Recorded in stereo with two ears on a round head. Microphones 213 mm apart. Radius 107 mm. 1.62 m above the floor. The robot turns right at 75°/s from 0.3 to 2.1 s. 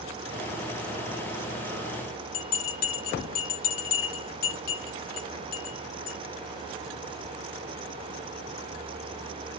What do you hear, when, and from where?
2.3 s a bell: 35° left (ahead or behind), 0.7 m